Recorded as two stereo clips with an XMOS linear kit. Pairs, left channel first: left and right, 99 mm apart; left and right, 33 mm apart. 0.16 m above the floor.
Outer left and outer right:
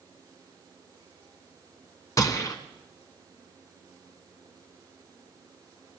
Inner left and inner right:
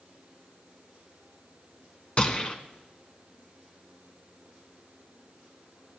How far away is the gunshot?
About 1.1 m.